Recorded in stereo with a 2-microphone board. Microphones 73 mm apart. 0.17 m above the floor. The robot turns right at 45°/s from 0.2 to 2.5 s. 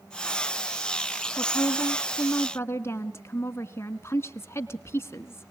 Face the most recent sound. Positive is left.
turn(degrees=130)